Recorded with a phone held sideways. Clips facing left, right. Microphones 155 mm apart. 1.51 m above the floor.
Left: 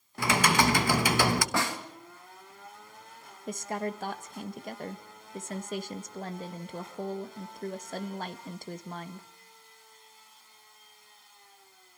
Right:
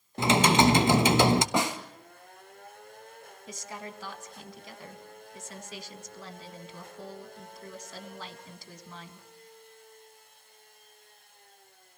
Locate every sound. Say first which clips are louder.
0.2 s typing on a keyboard: right 4 dB; 25° right (ahead or behind), 1.0 m
1.5 s a snare drum: right 3 dB; 20° right (ahead or behind), 2 m
3.5 s a woman speaking: left 9 dB; 50° left (ahead or behind), 1.6 m